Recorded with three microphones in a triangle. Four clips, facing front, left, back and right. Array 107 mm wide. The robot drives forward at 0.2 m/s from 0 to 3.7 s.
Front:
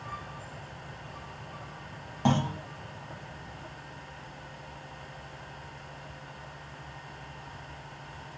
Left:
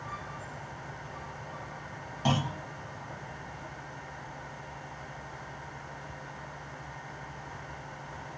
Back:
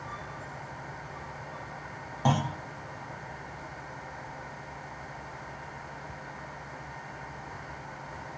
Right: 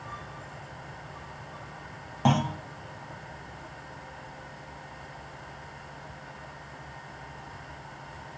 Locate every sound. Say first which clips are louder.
2.2 s a clunk: right 5 dB, front 1 dB; 90° right, 0.7 m; by 2.6 s 100° right, 0.7 m